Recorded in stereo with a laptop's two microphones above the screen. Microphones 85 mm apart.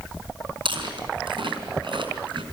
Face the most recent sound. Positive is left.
turn(degrees=-80)